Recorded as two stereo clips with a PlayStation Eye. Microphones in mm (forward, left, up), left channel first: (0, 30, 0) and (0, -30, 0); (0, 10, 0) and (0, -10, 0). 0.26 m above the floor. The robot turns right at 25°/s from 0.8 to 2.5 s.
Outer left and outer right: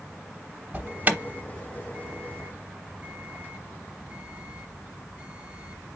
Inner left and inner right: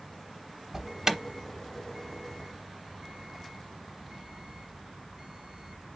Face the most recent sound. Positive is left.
turn(degrees=-25)  # may be behind; listen again after turning